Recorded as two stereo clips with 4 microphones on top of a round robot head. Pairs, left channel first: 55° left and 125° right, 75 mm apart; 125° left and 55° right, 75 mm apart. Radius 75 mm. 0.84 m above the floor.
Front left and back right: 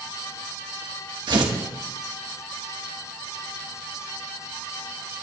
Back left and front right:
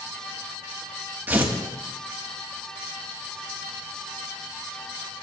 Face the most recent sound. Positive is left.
turn(degrees=-115)